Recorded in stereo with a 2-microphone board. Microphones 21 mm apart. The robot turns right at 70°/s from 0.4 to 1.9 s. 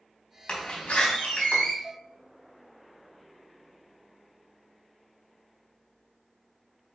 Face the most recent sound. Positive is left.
turn(degrees=-5)  # may be behind; listen again after turning